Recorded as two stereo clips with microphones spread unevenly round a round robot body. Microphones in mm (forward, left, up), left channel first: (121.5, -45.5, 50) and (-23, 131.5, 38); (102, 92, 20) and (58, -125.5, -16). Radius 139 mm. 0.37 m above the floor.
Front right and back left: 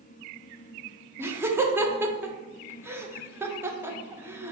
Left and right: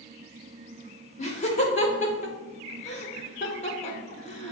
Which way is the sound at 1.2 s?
80° left.